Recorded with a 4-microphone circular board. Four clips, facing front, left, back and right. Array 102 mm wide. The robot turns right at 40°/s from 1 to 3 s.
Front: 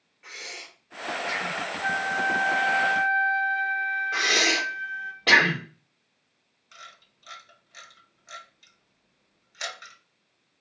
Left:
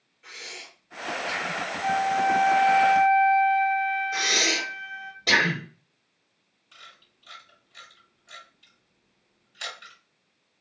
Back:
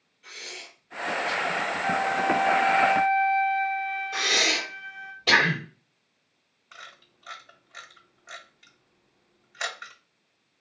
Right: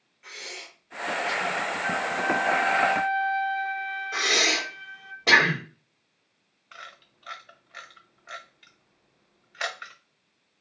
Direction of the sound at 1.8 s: 15° left.